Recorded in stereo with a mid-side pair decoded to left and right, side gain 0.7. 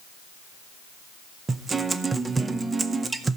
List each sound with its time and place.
1.5 s a guitar: 20° right, 0.7 m